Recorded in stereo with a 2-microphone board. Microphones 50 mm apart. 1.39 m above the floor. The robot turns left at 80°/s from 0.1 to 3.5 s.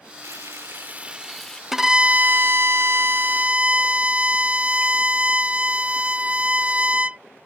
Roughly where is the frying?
Right.